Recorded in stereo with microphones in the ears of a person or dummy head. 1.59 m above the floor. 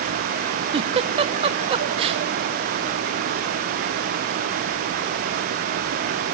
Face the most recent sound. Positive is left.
turn(degrees=-35)  # may be behind; listen again after turning